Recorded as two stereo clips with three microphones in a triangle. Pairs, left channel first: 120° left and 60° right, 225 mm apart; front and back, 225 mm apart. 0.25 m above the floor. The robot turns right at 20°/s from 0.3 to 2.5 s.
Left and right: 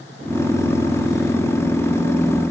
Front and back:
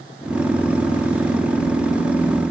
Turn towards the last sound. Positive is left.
No sound to turn to.